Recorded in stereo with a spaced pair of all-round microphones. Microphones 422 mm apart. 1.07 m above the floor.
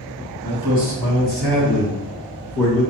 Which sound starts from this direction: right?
A man speaking, at 0.4 s.